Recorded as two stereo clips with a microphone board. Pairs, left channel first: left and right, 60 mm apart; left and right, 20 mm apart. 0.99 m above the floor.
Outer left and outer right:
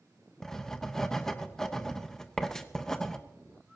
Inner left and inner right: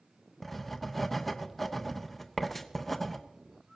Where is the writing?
5° left (ahead or behind), 1.1 m.